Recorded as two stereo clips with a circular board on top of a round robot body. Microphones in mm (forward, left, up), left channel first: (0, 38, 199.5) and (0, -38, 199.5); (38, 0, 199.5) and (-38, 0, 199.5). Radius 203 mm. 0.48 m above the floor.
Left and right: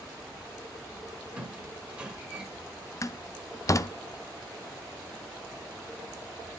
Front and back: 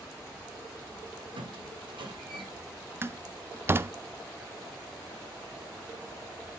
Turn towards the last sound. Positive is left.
turn(degrees=125)